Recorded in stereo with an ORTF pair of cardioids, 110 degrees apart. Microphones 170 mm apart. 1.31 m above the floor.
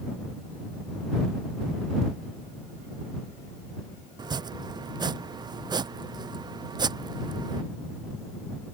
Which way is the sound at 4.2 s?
25° right.